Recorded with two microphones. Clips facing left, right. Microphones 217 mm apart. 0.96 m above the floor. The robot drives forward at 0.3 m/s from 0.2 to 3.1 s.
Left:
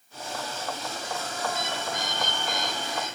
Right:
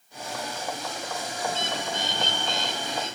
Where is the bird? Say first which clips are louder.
Right 2 dB; 30° right (ahead or behind), 3.5 m; by 3.2 s 25° right (ahead or behind), 4 m.